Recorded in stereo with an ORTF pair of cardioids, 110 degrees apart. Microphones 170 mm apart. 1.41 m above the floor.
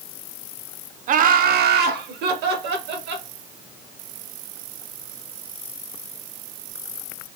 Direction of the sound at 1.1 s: 50° right.